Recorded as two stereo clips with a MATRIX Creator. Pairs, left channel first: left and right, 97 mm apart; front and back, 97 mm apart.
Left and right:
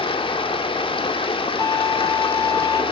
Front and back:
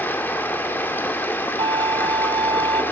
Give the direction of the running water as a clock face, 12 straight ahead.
10 o'clock.